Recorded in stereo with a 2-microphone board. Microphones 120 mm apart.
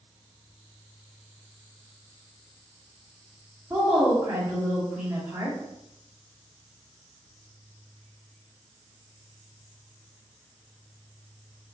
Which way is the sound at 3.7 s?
25° right (ahead or behind).